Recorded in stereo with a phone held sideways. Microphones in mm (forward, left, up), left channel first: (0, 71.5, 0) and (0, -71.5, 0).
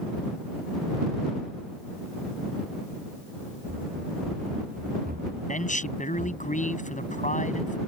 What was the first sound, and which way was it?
Running footsteps, 75° right (ahead or behind).